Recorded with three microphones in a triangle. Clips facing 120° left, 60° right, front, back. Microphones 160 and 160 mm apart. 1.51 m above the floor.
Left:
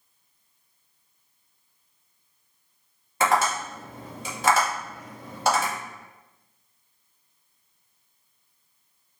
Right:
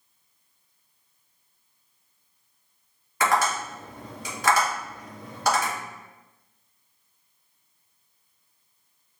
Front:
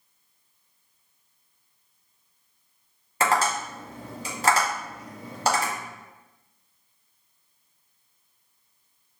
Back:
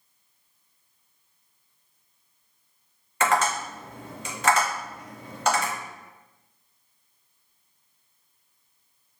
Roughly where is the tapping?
Ahead left.